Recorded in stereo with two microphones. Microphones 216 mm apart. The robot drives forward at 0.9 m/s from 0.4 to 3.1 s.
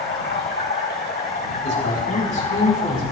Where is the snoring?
No snoring in this recording.